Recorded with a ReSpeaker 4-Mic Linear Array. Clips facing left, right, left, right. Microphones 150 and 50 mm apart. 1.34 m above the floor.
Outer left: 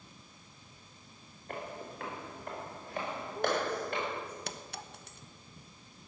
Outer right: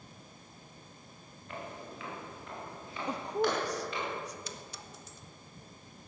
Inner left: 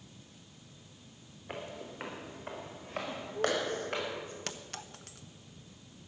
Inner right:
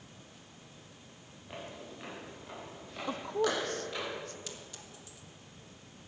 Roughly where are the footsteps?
Left.